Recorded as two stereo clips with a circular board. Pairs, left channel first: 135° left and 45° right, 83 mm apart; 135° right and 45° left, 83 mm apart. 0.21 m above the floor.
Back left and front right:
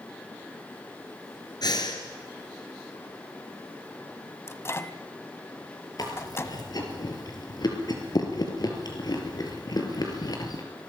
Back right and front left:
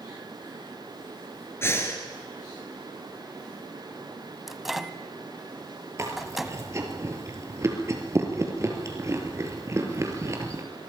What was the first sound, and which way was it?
Breathing, 170° left.